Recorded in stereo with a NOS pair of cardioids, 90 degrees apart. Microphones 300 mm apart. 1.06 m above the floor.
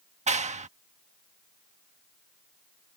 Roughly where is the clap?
Ahead right.